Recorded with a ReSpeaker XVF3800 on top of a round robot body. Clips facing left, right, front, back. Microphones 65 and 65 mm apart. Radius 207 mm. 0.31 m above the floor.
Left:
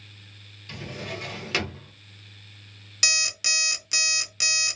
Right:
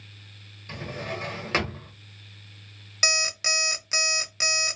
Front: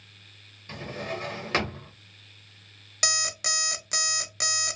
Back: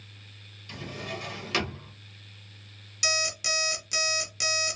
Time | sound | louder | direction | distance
0.7 | a drawer | right 2 dB, front 3 dB | 45° right | 1.1 m
3.0 | an alarm clock | right 2 dB, even | 30° right | 0.7 m